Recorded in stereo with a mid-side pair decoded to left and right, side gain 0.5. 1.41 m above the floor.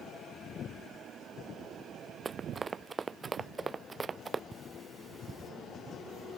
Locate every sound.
2.2 s running footsteps: 30° right
4.5 s cutlery clinking: 20° right